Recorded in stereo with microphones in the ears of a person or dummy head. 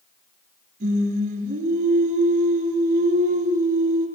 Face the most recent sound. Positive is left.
turn(degrees=-55)  # may be behind; listen again after turning